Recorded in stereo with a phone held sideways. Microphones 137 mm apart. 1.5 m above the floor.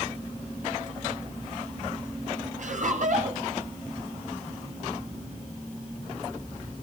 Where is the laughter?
60° right (ahead or behind), 7.5 m.